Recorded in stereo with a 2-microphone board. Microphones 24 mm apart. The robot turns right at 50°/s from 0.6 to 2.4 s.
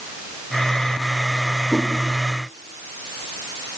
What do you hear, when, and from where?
1.7 s a whoosh: 10° right (ahead or behind), 1.2 m; by 1.9 s 5° right (ahead or behind), 1.2 m